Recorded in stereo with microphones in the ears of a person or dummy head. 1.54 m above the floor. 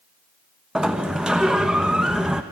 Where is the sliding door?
5° right (ahead or behind), 1.2 m.